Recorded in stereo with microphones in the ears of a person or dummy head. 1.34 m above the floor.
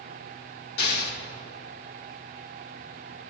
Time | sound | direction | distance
0.8 | an explosion | 70° left (ahead or behind) | 2.5 m